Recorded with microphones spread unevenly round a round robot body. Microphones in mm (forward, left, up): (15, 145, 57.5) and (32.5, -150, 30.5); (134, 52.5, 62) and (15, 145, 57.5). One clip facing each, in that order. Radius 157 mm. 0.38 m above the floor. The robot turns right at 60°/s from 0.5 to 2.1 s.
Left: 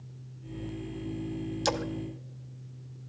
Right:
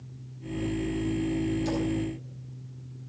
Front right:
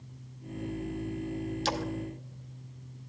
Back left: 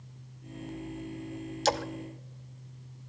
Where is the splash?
95° left, 0.8 m; by 1.9 s 105° left, 0.8 m.